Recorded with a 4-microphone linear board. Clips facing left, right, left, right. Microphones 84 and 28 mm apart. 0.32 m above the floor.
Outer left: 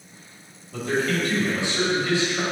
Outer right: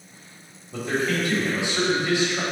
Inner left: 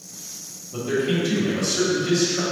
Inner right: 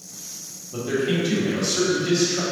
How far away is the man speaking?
About 1.3 m.